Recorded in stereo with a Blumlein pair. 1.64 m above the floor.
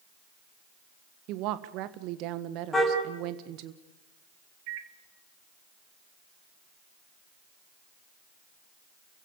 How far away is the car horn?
About 6 m.